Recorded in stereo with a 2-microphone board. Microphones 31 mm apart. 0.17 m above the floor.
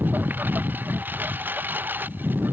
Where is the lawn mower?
75° right (ahead or behind); by 2.5 s 85° right.